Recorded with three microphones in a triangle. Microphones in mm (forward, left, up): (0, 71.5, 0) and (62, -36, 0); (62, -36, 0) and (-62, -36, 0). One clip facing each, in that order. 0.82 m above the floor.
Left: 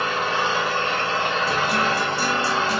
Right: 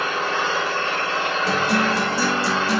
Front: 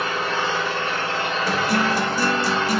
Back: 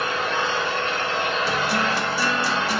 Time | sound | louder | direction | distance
0.0 | an engine running | even, even | 45° left | 1.3 m
1.5 | a guitar | right 2 dB, front 2 dB | 50° right | 0.6 m